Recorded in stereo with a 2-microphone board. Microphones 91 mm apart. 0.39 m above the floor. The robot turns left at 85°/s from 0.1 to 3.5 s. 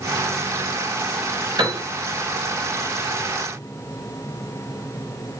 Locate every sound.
1.6 s a piano: 55° right (ahead or behind), 0.8 m; by 1.8 s 35° right (ahead or behind), 0.8 m